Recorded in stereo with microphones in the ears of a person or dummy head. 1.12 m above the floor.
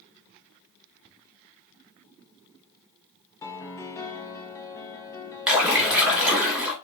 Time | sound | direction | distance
3.4 | a piano | 20° left (ahead or behind) | 0.6 m
5.5 | a splash | centre (ahead or behind) | 1.6 m